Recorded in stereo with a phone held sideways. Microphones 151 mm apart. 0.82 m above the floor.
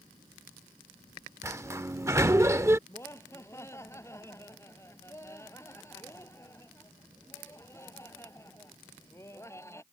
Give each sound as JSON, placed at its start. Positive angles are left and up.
{"t": 1.4, "sound": "a sliding door", "side_deg": -20}
{"t": 2.9, "sound": "laughter", "side_deg": 20}